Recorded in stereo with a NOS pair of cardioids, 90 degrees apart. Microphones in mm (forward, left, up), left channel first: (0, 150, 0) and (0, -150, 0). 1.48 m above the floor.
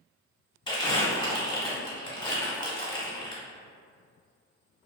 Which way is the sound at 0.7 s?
15° left.